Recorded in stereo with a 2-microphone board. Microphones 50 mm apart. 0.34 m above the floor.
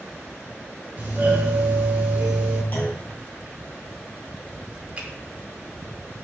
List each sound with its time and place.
1.0 s a doorbell: 35° right (ahead or behind), 1.5 m
2.7 s a clunk: 45° left (ahead or behind), 2.0 m
5.0 s a finger snap: 30° right (ahead or behind), 1.2 m